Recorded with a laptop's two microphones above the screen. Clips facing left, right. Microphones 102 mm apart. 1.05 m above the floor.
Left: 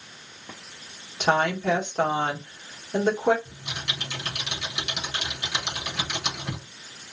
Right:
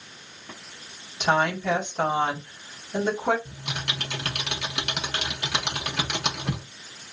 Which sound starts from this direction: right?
Typing on a keyboard, at 3.5 s.